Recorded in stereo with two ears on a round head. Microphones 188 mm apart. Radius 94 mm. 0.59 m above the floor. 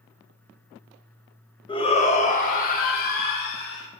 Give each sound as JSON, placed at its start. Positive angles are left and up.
{"t": 1.7, "sound": "a shout", "side_deg": 25, "distance_m": 1.1}